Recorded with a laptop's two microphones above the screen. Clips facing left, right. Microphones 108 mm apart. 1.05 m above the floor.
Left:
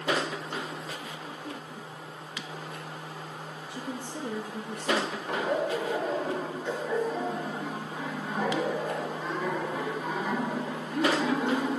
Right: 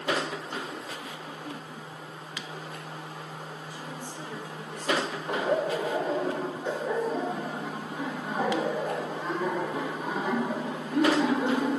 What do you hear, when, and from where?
3.7 s a woman speaking: 80° left, 1.0 m
5.3 s laughter: 25° right (ahead or behind), 2 m